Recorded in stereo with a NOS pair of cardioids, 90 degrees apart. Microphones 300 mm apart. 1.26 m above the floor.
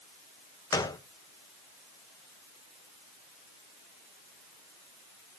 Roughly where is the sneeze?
I don't hear a sneeze.